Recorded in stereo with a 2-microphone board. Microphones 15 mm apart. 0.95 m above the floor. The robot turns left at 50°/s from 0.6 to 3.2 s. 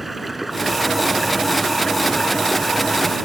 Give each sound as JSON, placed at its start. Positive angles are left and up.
{"t": 0.0, "sound": "running water", "azimuth_deg": -170}